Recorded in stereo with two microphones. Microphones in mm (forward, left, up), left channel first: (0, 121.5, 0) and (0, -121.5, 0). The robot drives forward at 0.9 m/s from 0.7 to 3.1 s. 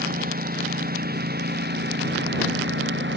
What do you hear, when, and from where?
0.0 s a lawn mower: 35° right (ahead or behind); by 3.2 s 45° right (ahead or behind)